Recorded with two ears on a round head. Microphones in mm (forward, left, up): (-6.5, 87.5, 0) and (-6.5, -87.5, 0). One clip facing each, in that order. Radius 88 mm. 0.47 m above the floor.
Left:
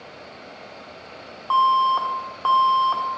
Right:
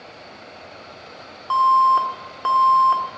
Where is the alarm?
25° right (ahead or behind), 0.9 m.